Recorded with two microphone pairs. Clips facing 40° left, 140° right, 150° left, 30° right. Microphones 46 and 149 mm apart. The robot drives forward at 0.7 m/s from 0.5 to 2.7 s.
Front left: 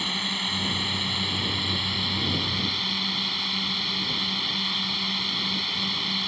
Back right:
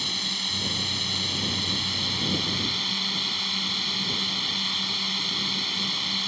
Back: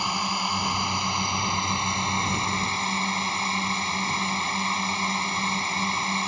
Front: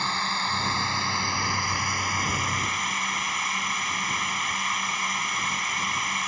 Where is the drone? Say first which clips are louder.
Front left 3 dB, back 2 dB; 85° left; by 6.3 s 120° left.